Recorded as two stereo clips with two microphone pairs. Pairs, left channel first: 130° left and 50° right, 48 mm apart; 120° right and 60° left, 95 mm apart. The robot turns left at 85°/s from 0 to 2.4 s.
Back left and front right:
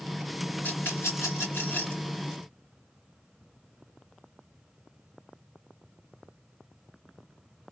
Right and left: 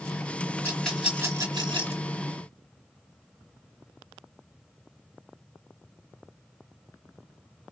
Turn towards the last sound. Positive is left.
turn(degrees=20)